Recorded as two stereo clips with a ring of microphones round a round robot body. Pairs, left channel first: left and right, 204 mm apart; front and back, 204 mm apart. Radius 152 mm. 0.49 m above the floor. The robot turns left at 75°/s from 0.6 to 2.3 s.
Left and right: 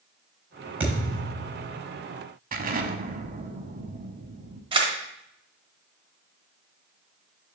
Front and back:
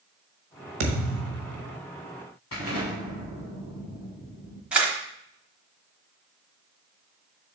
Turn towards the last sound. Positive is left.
turn(degrees=-100)